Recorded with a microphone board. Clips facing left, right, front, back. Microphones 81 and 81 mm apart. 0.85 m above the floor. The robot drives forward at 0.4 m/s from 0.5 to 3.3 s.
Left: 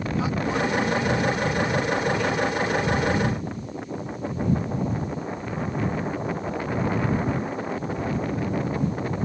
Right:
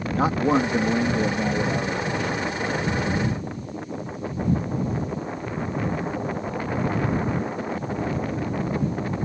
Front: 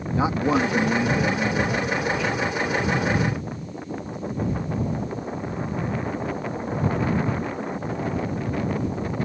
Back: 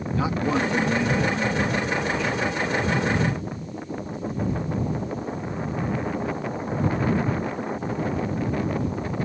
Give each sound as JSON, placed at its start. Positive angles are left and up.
{"t": 0.1, "sound": "a man speaking", "azimuth_deg": -60}